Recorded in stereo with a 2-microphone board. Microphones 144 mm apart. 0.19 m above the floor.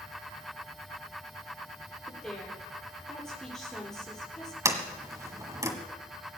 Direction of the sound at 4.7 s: 20° right (ahead or behind).